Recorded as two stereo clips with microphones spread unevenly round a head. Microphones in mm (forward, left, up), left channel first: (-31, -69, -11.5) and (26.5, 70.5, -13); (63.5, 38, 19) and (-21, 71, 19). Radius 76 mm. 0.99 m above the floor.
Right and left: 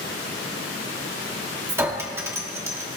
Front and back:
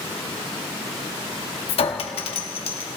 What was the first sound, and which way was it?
A clink, 10° right.